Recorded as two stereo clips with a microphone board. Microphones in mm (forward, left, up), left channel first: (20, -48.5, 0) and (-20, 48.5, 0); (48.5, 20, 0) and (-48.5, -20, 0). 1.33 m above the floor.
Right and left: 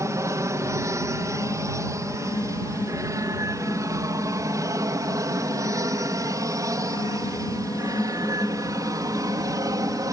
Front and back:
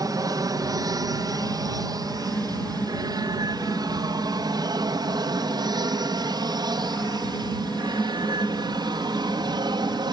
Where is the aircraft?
165° left.